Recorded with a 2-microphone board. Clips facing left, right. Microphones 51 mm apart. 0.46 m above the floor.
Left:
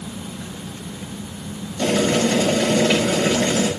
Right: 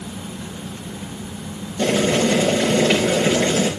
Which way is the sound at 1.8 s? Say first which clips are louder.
Right 1 dB; 25° right (ahead or behind).